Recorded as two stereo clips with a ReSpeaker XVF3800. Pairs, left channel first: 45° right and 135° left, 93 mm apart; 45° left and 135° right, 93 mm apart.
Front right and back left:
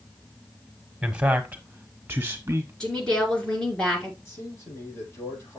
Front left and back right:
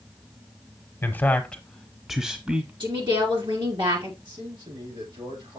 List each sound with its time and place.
1.0 s a man speaking: 70° left, 1.1 m; by 2.7 s 165° left, 1.2 m
2.8 s a woman speaking: 125° right, 2.5 m
4.2 s a man speaking: 105° right, 6 m